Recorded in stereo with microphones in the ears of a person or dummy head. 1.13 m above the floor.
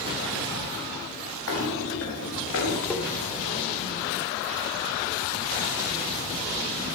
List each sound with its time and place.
1.5 s footsteps: 80° left, 7 m
2.9 s tapping: 5° left (ahead or behind), 3.5 m